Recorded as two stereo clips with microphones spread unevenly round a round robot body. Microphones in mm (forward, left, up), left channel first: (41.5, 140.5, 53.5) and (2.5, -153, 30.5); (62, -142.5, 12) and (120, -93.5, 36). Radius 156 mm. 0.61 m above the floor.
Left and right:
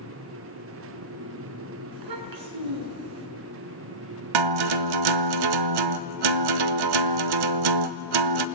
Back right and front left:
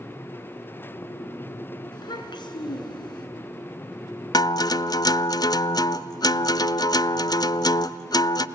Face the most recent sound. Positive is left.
turn(degrees=-95)